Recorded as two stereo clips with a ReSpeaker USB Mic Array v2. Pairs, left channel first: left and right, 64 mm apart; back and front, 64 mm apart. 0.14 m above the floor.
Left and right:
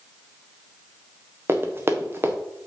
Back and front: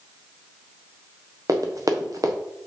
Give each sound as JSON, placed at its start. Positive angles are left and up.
{"t": 1.5, "sound": "running footsteps", "azimuth_deg": -35, "distance_m": 1.5}